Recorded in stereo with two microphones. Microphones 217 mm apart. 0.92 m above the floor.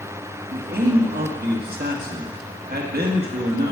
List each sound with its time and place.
0.5 s a man speaking: 45° right (ahead or behind), 1.6 m